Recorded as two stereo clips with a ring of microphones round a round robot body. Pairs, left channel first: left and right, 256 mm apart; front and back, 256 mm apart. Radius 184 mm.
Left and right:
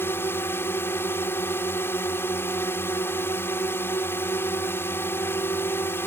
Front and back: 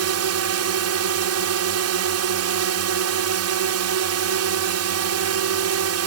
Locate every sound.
0.0 s a drone: 175° left